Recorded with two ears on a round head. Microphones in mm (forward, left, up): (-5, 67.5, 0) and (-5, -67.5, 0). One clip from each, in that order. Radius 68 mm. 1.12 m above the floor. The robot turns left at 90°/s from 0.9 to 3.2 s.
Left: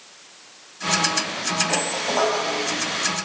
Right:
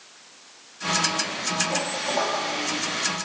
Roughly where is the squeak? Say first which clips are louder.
Left 3 dB; behind left.